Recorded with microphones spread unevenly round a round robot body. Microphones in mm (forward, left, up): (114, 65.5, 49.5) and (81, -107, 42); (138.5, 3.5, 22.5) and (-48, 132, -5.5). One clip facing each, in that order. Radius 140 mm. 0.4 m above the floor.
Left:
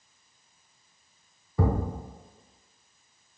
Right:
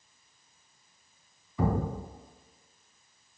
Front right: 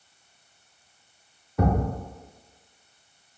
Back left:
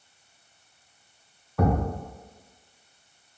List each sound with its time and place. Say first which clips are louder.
1.6 s a thud: left 1 dB, even; 40° left, 1.9 m